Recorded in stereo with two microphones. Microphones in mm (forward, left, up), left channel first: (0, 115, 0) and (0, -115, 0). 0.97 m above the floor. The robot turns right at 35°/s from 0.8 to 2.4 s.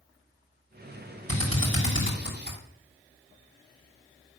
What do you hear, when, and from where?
1.3 s a drill: 80° right, 4.5 m; by 2.6 s 45° right (ahead or behind), 4.5 m